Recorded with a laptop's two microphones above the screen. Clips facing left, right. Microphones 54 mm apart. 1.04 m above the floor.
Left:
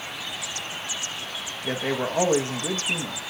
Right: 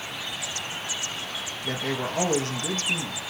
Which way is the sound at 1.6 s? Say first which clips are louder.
Left 3 dB; 25° left (ahead or behind).